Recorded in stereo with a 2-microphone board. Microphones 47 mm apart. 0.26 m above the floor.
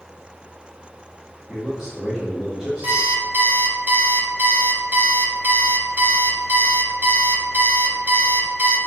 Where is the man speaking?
15° right (ahead or behind), 1.1 m.